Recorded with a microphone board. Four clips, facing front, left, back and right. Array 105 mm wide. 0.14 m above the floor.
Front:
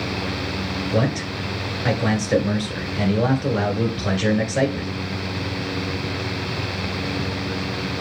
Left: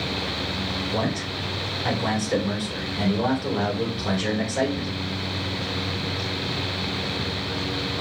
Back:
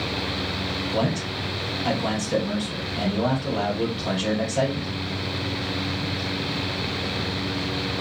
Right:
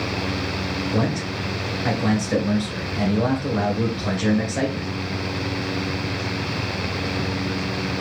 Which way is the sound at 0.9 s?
10° right.